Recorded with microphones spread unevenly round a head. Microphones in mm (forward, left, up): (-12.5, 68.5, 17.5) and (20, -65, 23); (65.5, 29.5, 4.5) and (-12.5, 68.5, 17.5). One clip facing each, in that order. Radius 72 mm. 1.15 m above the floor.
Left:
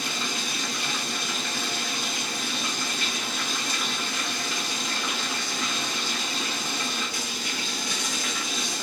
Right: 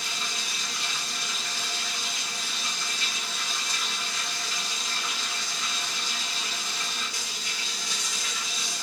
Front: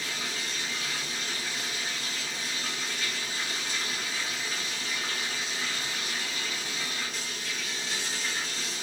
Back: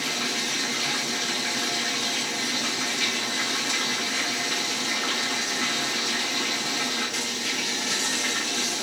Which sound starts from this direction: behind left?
Running water, at 0.0 s.